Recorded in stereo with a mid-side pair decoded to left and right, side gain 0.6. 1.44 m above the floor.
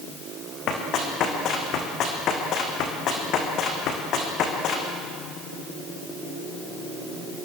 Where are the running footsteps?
55° left, 4.5 m.